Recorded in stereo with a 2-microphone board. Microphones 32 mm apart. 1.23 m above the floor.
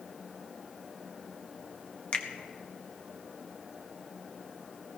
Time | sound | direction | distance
2.1 | a finger snap | 40° left (ahead or behind) | 1.1 m